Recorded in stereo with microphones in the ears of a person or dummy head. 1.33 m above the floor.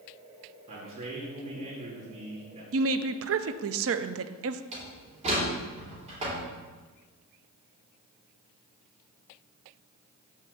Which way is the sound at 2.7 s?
65° right (ahead or behind).